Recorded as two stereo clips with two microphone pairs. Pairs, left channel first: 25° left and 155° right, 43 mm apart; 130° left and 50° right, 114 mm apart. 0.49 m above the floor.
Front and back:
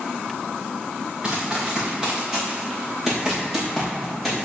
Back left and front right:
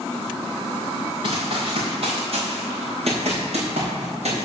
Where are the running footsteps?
90° right, 3 m; by 4.5 s 75° right, 6 m.